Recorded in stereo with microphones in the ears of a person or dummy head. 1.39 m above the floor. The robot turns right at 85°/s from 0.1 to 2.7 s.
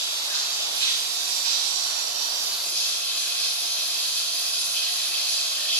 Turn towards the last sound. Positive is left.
turn(degrees=10)